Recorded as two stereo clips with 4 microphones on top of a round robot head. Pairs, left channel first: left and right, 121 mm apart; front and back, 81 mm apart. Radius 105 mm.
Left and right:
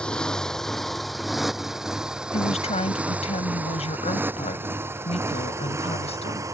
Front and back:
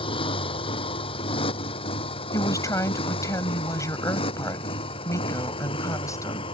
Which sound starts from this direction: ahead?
A motorcycle, at 0.0 s.